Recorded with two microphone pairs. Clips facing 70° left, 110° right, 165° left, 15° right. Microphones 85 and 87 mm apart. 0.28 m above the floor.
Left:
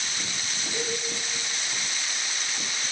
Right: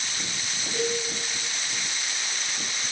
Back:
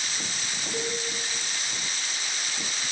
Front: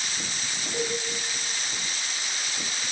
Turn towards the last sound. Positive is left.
turn(degrees=150)